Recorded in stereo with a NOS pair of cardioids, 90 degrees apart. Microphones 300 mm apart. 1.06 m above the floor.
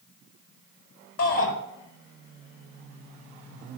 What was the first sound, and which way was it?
A shout, 55° left.